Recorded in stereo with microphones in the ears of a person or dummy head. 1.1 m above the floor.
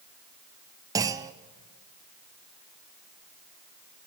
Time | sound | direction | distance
0.9 | a clunk | 20° right (ahead or behind) | 0.5 m